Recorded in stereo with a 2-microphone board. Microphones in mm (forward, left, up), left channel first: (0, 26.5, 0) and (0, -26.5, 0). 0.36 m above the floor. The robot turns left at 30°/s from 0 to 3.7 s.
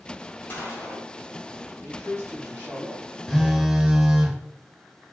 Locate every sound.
0.5 s a gunshot: 35° left (ahead or behind), 1.7 m; by 1.1 s 20° left (ahead or behind), 1.7 m
1.8 s a man speaking: 45° right, 1.5 m; by 3.1 s 80° right, 1.5 m
3.3 s a phone buzzing: centre (ahead or behind), 0.6 m; by 4.4 s 10° right (ahead or behind), 0.6 m